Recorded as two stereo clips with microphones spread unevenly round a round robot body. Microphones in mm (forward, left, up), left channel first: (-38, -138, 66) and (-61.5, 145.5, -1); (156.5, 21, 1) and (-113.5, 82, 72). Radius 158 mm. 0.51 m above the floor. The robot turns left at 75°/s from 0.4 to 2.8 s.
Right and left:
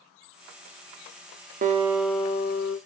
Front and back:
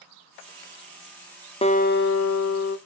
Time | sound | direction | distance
1.6 | a guitar | 45° left | 0.6 m